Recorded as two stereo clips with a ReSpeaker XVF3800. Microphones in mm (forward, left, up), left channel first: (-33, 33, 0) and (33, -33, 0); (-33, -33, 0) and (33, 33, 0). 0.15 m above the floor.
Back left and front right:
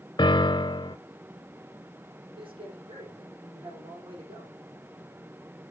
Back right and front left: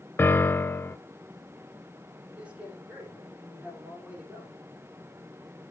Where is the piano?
160° left, 0.5 m.